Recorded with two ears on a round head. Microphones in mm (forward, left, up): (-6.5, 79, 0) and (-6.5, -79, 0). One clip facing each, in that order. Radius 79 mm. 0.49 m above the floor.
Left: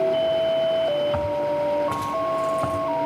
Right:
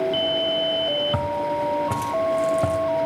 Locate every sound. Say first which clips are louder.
1.1 s footsteps: left 2 dB; 45° right (ahead or behind), 2.5 m; by 2.8 s 25° right (ahead or behind), 2 m